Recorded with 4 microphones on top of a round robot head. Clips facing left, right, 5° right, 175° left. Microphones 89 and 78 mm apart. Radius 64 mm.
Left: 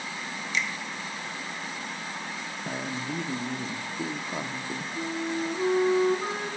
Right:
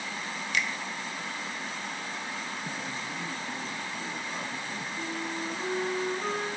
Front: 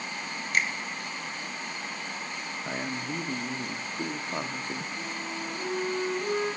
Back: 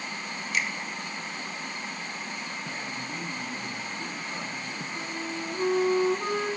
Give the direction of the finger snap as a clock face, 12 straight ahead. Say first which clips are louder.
Even, front 2 dB; 2 o'clock.